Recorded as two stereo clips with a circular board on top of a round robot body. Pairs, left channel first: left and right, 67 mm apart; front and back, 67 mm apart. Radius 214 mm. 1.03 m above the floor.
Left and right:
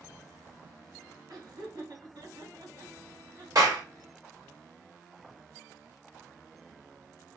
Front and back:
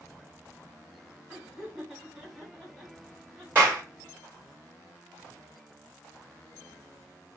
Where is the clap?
125° right, 2.5 m.